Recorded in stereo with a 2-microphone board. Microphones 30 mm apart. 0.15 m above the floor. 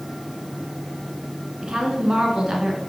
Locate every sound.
1.6 s a woman speaking: 35° right (ahead or behind), 1.8 m